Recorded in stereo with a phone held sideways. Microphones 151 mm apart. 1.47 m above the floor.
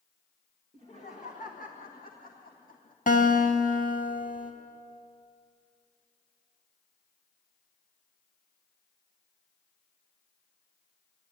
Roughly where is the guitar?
Left.